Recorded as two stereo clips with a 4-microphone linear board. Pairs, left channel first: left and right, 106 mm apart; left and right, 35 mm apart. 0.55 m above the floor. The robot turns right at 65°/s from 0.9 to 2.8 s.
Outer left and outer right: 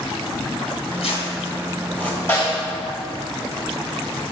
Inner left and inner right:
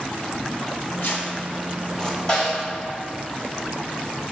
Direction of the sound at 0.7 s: 75° left (ahead or behind).